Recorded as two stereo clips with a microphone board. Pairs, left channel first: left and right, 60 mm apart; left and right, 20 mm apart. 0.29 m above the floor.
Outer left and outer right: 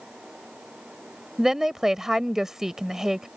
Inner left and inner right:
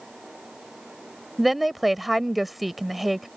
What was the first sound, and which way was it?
A woman speaking, 5° right (ahead or behind).